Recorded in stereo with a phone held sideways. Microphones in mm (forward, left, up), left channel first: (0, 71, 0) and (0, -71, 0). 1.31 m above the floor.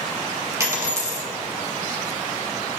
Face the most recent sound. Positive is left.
turn(degrees=-20)  # may be behind; listen again after turning